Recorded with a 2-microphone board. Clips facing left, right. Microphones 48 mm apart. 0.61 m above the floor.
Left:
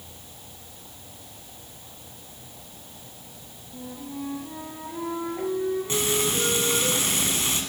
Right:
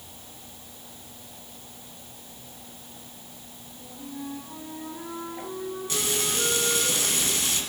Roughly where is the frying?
Left.